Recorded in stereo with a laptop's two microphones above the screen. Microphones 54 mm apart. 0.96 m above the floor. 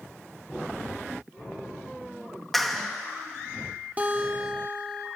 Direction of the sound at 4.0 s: 30° right (ahead or behind).